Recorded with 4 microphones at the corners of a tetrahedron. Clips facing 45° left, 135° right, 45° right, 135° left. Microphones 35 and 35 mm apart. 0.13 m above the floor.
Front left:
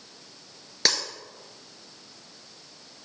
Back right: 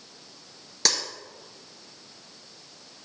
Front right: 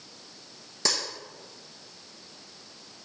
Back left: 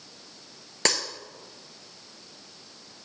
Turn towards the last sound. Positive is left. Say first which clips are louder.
# front left 1 dB, back left 4 dB
turn(degrees=115)